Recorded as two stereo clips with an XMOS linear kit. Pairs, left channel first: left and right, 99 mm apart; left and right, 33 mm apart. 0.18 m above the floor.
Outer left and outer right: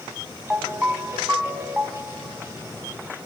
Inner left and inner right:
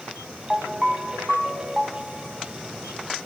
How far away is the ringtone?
About 1.0 m.